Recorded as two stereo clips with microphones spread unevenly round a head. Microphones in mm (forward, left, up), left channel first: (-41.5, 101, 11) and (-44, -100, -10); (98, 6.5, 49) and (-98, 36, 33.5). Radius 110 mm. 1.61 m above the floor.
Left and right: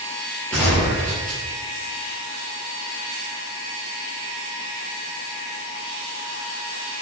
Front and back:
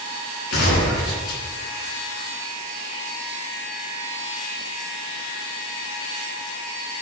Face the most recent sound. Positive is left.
turn(degrees=5)